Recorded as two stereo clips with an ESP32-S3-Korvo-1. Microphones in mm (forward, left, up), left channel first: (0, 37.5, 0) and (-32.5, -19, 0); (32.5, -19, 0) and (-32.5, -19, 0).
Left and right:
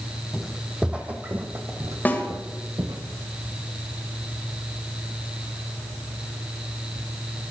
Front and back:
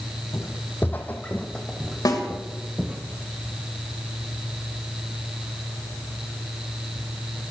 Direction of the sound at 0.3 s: 30° right.